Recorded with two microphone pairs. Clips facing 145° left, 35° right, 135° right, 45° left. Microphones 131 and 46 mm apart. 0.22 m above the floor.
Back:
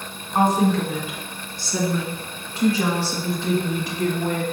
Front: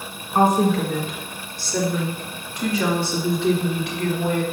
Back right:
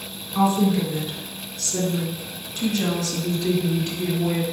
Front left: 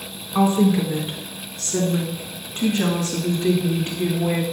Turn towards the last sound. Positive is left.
turn(degrees=105)